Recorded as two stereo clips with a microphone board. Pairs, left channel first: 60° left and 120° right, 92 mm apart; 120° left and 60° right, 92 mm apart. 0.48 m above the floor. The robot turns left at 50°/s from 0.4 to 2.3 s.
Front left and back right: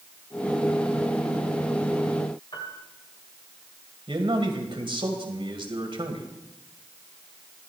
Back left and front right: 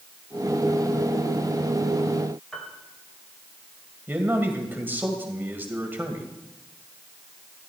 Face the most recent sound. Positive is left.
turn(degrees=-125)